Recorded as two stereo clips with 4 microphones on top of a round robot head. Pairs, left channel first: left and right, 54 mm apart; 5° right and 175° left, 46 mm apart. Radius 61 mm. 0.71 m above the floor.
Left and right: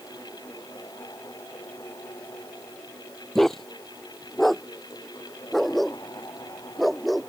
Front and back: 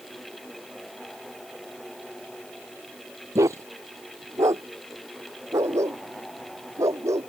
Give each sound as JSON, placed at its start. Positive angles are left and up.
{"t": 3.4, "sound": "a dog barking", "azimuth_deg": 175}